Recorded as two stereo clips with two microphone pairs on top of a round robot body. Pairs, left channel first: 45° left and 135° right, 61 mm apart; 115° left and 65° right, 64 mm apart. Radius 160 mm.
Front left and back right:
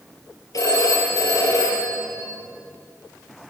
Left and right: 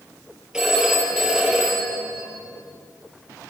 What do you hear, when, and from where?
0.5 s a phone ringing: 15° left, 7 m